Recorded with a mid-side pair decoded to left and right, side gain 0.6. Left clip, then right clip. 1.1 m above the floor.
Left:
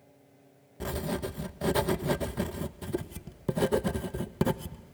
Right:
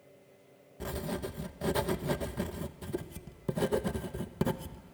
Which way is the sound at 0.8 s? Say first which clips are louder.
Left 3 dB; 20° left.